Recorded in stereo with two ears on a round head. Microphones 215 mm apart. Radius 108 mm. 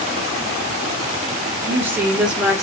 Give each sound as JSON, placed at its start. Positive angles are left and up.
{"t": 1.6, "sound": "a woman speaking", "side_deg": -10, "distance_m": 1.4}